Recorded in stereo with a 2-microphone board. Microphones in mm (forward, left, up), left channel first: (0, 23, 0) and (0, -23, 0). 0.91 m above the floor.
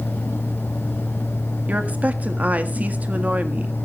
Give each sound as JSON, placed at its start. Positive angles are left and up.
{"t": 1.7, "sound": "a woman speaking", "side_deg": -35, "distance_m": 1.7}